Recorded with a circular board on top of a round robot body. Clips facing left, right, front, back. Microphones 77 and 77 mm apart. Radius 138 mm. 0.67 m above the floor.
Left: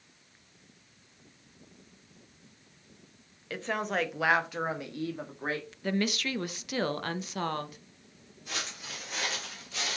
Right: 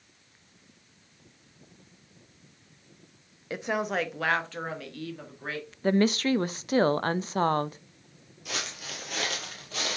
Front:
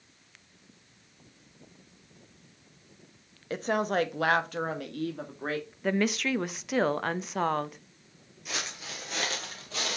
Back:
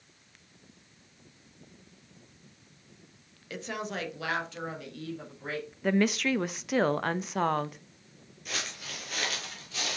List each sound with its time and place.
3.5 s a woman speaking: 30° right, 0.7 m; by 5.7 s 35° left, 1.4 m
5.8 s a woman speaking: 90° right, 0.5 m
8.4 s footsteps: 85° right, 0.8 m; by 10.0 s 45° right, 1.2 m